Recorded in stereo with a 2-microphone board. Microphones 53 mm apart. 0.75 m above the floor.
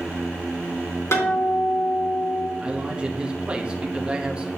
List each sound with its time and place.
1.1 s a guitar: 65° left (ahead or behind), 2.5 m
2.6 s a man speaking: 20° right (ahead or behind), 0.8 m